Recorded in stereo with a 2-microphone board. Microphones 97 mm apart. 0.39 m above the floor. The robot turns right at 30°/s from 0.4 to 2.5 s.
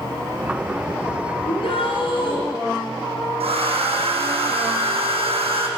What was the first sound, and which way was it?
A shout, 75° left (ahead or behind).